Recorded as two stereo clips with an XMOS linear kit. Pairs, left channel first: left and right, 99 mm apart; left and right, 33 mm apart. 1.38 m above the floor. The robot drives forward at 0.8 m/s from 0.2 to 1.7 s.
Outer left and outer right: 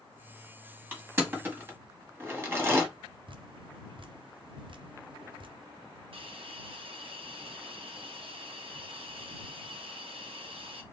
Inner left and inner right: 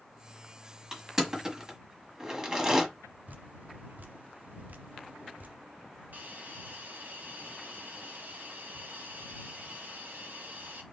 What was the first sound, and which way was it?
Crushing, 15° right (ahead or behind).